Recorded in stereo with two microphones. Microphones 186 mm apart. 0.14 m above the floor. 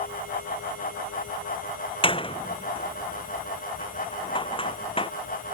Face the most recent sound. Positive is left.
turn(degrees=30)  # may be behind; listen again after turning